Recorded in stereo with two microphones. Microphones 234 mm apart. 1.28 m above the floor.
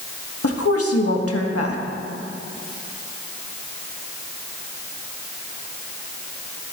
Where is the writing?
I don't hear writing.